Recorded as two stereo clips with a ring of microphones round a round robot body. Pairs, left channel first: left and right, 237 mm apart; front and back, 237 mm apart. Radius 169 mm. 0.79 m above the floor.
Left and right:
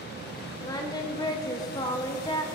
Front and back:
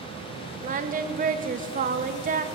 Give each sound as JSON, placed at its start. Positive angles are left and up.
{"t": 0.6, "sound": "singing", "azimuth_deg": 155, "distance_m": 0.9}